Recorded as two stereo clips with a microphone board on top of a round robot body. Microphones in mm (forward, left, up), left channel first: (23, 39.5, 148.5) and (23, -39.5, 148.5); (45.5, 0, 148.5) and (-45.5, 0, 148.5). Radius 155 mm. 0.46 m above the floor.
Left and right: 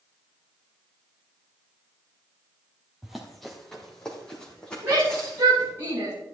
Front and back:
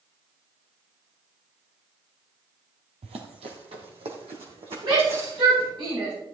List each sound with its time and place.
3.0 s running footsteps: 175° right, 1.1 m; by 5.7 s 165° left, 3 m
4.8 s a shout: 150° right, 5.5 m